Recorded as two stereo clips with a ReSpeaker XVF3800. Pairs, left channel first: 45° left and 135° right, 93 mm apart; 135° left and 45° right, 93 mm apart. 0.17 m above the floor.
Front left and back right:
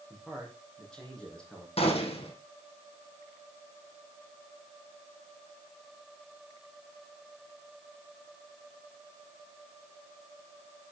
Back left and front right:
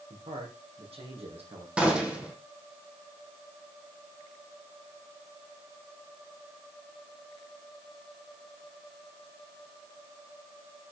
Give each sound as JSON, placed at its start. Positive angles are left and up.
{"t": 0.1, "sound": "a man speaking", "azimuth_deg": -45, "distance_m": 5.0}
{"t": 1.8, "sound": "a gunshot", "azimuth_deg": 35, "distance_m": 3.0}